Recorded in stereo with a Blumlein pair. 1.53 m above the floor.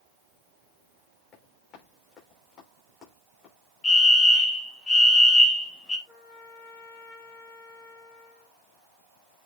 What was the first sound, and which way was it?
Running footsteps, 25° left.